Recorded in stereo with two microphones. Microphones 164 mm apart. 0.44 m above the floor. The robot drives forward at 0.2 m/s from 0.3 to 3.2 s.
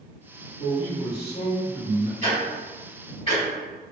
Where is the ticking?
35° left (ahead or behind), 1.5 m.